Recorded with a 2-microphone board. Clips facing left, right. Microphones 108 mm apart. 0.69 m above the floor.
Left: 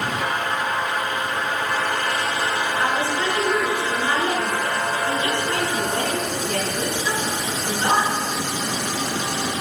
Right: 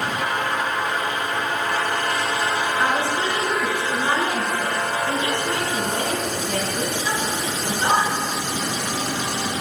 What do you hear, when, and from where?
2.8 s a woman speaking: 20° right (ahead or behind), 7 m